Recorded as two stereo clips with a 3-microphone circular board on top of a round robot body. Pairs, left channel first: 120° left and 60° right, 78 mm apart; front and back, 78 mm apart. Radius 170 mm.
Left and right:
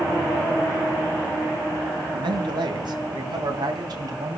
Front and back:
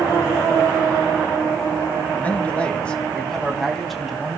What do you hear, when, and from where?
2.1 s a man speaking: 70° right, 4 m; by 4.4 s 95° right, 4 m